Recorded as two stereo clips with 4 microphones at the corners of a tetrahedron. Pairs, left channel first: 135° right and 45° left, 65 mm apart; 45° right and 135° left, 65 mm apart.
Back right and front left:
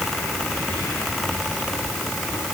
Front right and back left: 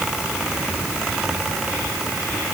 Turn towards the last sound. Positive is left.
No sound to turn to.